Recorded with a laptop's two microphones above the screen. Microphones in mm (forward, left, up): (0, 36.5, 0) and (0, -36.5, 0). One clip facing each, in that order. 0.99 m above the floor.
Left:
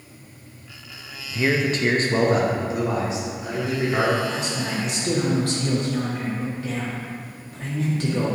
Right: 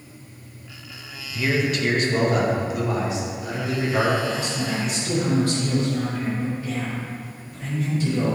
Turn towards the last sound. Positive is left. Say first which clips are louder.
# right 1 dB
turn(degrees=65)  # may be behind; listen again after turning